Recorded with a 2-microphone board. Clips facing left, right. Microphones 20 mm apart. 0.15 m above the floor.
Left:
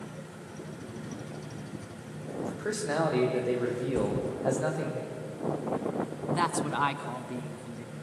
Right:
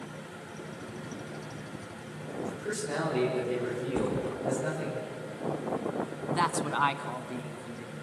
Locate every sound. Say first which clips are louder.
2.4 s a man speaking: left 2 dB; 70° left (ahead or behind), 8 m
4.0 s a thud: right 1 dB; 60° right (ahead or behind), 1.5 m
6.3 s a man speaking: even; 10° right (ahead or behind), 1.2 m